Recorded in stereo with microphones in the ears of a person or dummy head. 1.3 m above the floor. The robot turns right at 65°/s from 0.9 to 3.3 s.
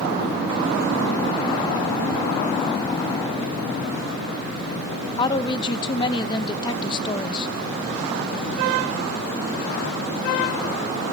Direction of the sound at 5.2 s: 20° left (ahead or behind).